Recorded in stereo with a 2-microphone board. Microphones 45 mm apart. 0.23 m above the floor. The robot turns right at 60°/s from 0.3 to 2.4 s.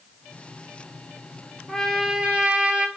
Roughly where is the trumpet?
Behind.